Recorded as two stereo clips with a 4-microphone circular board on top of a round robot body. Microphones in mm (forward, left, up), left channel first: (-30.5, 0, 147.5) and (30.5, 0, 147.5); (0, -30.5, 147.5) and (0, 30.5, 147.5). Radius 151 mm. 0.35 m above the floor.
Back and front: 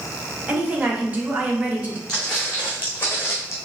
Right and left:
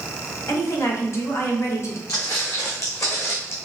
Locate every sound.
0.5 s a woman speaking: 65° right, 1.6 m
2.1 s footsteps: 100° right, 1.8 m; by 3.6 s 135° right, 1.1 m